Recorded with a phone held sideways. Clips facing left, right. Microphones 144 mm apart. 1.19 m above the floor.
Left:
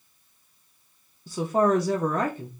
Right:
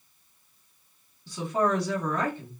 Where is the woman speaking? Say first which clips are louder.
Left 4 dB; 45° left (ahead or behind), 1.1 m.